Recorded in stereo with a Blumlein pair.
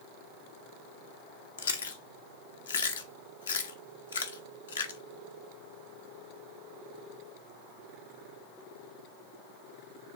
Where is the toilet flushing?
I don't hear a toilet flushing.